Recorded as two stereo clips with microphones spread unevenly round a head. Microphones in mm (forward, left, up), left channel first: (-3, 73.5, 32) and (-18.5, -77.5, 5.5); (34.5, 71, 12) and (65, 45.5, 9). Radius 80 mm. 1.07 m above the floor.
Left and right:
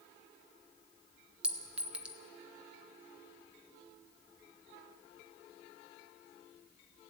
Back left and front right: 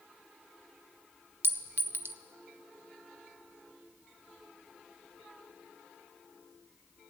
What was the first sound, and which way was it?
A clink, 10° right.